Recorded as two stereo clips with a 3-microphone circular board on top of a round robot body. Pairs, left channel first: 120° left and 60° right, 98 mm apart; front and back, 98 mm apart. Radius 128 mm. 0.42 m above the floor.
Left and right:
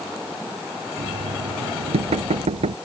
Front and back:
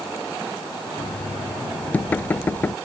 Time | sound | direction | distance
1.0 | knocking | 75° right | ?